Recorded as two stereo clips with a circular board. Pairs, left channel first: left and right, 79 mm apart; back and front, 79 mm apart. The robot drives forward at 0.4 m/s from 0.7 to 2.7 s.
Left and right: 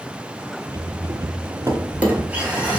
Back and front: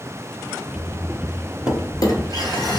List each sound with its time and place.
1.7 s a drawer: 155° right, 0.7 m; by 2.8 s 165° right, 1.1 m